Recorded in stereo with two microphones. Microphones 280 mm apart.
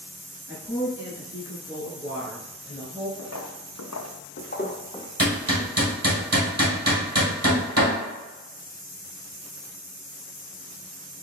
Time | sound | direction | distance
0.5 | a woman speaking | 5° right (ahead or behind) | 1.2 m
3.2 | footsteps | 70° left (ahead or behind) | 0.8 m
5.2 | hammering | 60° right (ahead or behind) | 1.9 m